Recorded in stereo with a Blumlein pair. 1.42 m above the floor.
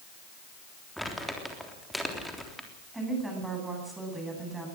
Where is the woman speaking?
10° right, 9.5 m.